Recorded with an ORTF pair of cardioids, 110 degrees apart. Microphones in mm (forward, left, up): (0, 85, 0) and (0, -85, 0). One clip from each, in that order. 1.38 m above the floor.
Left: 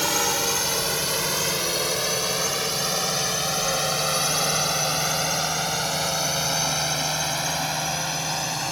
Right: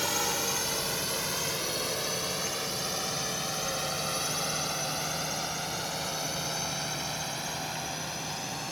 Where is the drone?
40° left; by 8.7 s 55° left.